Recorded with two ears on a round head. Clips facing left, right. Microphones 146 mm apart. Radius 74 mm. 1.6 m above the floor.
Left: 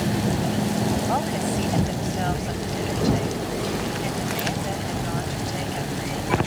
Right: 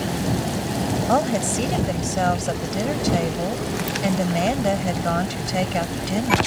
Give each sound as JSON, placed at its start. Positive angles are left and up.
{"t": 1.1, "sound": "a woman speaking", "side_deg": -60}